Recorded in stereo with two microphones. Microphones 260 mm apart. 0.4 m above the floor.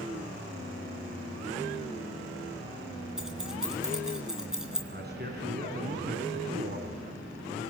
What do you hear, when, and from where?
3.2 s keys jangling: centre (ahead or behind), 4 m
4.9 s a man speaking: 40° right (ahead or behind), 3.5 m